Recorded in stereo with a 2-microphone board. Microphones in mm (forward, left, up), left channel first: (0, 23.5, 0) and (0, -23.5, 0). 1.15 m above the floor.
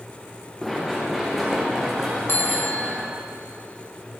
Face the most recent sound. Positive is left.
turn(degrees=55)  # may be behind; listen again after turning